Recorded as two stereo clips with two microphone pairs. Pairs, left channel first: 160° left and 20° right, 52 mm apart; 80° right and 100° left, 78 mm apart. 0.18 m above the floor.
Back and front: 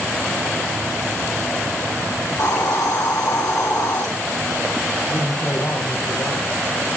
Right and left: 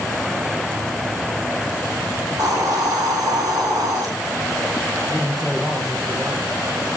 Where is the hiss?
135° left, 6 m.